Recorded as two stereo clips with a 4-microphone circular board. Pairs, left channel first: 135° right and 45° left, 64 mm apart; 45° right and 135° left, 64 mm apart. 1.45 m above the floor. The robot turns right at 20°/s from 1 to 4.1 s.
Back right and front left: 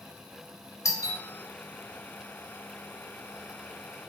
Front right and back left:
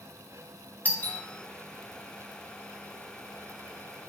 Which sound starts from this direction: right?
A doorbell, at 0.8 s.